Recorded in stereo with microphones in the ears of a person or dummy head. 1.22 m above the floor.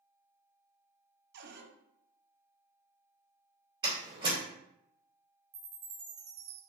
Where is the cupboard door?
55° right (ahead or behind), 0.7 m.